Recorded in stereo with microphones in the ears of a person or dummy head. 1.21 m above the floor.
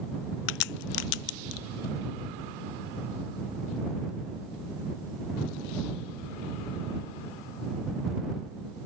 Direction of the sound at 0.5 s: 55° left (ahead or behind).